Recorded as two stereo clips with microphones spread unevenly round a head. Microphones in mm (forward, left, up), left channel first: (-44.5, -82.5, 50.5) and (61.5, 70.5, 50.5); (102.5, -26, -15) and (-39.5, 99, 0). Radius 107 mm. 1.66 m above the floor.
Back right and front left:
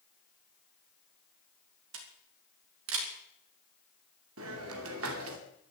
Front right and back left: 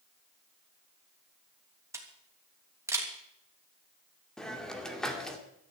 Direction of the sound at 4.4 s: 50° left.